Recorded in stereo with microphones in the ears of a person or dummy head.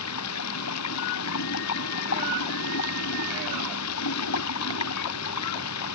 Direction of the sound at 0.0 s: 80° left.